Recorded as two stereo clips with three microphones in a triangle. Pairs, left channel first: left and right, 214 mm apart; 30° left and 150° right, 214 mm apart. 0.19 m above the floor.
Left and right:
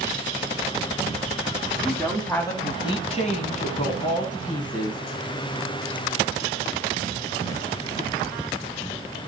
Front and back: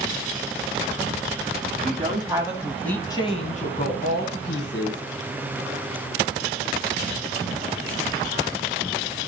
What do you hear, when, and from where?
1.7 s a woman speaking: 175° right, 1.3 m; by 5.0 s 40° left, 2 m